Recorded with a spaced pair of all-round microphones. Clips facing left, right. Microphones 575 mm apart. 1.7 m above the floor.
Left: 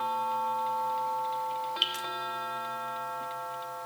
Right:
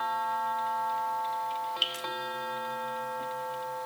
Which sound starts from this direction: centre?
Dripping, at 1.8 s.